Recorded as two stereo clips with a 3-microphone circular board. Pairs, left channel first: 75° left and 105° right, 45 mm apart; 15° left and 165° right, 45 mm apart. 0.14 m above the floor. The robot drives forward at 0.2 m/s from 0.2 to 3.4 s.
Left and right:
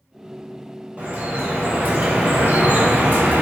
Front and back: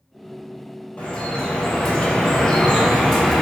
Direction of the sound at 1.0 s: 45° right.